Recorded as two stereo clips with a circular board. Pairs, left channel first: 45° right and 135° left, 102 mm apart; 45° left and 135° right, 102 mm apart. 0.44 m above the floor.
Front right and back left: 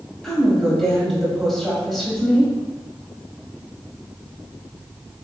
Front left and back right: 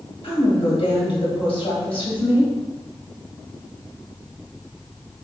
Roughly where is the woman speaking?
Ahead left.